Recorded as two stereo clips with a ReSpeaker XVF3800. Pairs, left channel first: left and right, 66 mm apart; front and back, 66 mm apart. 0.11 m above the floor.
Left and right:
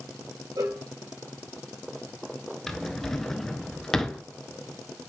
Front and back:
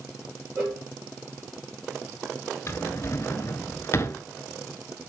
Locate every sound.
0.6 s a cowbell: 95° right, 3 m
2.7 s a drawer: 10° left, 0.7 m